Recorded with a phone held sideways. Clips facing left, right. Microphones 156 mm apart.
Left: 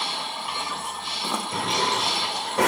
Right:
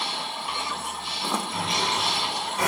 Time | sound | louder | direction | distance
1.5 | a drawer | left 2 dB | 75° left (ahead or behind) | 2.5 m